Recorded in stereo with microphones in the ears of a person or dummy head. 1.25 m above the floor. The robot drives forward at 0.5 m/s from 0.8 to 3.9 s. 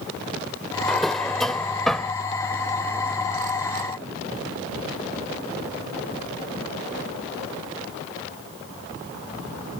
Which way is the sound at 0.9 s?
Centre (ahead or behind).